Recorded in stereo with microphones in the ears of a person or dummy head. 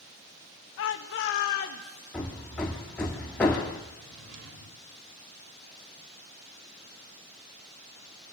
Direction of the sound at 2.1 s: 10° left (ahead or behind).